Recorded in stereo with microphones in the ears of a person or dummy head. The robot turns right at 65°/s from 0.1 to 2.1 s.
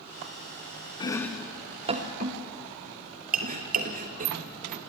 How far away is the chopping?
About 1.1 m.